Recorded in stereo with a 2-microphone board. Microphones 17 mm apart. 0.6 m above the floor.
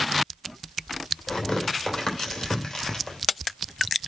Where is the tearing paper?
55° left (ahead or behind), 3 m.